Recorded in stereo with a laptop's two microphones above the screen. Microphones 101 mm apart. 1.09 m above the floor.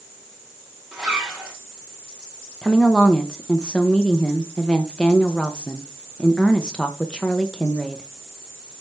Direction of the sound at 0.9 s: 5° right (ahead or behind).